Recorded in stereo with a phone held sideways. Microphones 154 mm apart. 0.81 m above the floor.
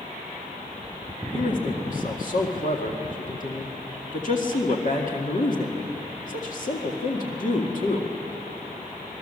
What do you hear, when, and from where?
1.3 s a man speaking: 60° left (ahead or behind), 2 m